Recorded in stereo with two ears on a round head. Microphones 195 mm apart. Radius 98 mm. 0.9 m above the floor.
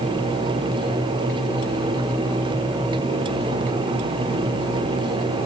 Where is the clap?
No clap in this recording.